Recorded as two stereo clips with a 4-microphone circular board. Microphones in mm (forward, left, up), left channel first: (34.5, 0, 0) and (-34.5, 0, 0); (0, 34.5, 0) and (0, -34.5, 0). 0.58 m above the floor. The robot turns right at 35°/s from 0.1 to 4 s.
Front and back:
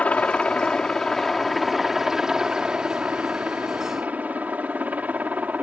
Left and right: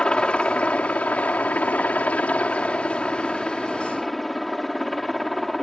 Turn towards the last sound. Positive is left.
turn(degrees=175)